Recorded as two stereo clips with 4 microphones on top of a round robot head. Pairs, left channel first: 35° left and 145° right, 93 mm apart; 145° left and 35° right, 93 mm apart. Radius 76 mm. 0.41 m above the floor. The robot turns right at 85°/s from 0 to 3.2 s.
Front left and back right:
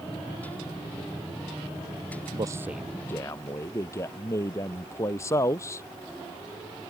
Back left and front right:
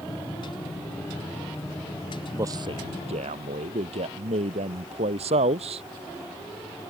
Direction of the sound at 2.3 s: 100° right.